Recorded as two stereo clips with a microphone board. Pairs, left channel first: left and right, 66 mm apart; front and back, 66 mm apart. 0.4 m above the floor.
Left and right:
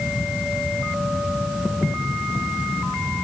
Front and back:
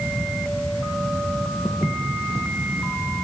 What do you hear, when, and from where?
1.6 s footsteps: straight ahead, 1.5 m; by 3.2 s 30° left, 3.5 m